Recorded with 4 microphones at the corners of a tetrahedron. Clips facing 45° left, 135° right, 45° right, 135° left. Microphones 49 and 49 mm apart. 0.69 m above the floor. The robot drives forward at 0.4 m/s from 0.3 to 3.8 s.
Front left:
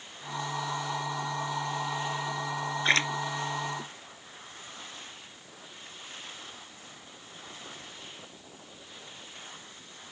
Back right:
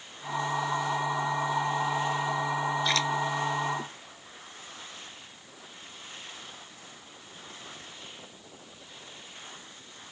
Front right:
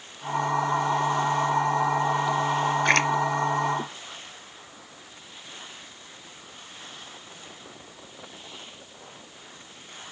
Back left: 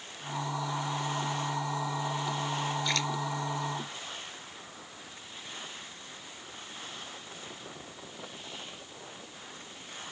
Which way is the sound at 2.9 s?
10° right.